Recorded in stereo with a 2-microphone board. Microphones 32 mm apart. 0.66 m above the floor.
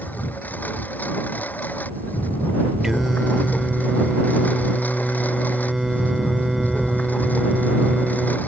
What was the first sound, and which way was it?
A lawn mower, 70° left (ahead or behind).